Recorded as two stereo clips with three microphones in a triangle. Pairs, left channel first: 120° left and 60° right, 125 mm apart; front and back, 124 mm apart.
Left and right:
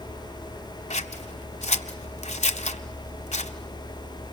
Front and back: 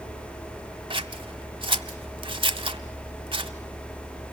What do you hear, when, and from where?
0.9 s scissors: 135° left, 1.1 m